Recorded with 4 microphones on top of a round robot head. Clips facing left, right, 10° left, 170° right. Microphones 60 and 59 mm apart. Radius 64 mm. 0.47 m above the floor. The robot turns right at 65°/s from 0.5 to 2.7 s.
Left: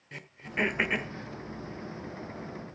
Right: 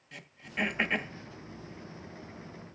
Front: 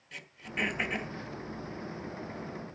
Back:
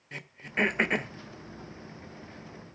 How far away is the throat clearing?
About 1.4 m.